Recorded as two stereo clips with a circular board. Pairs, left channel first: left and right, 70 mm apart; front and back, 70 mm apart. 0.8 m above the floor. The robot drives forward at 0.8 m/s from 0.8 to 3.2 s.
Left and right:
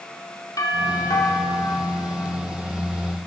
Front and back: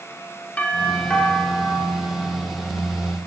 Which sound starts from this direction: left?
A doorbell, at 0.6 s.